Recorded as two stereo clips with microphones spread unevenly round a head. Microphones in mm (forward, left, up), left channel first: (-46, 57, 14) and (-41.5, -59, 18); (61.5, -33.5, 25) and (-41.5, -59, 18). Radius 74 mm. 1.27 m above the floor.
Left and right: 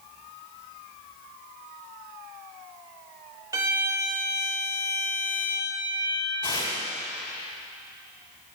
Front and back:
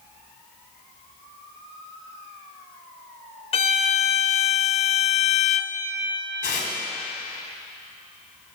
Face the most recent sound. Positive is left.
turn(degrees=30)